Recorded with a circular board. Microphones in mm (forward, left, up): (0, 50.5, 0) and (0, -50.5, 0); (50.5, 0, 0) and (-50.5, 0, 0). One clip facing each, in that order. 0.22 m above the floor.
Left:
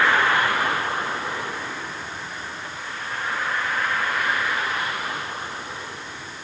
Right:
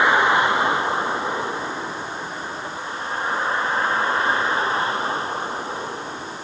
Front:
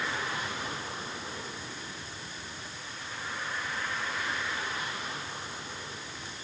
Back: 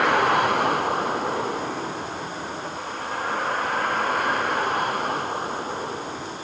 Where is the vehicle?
160° right; by 6.5 s 145° right.